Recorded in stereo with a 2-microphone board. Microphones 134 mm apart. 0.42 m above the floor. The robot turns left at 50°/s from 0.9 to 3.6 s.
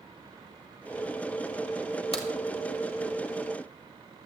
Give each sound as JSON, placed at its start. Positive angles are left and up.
{"t": 2.1, "sound": "a crack", "side_deg": 45, "distance_m": 1.6}